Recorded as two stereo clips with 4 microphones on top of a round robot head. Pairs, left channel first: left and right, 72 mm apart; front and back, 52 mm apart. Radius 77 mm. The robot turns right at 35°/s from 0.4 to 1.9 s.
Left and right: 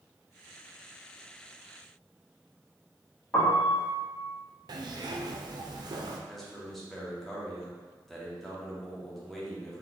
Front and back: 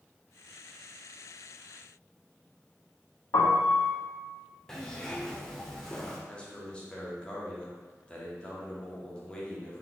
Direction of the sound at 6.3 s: 10° left.